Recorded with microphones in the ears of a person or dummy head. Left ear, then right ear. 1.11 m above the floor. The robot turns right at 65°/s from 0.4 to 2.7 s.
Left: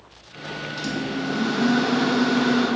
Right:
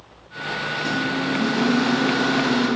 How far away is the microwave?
About 0.9 m.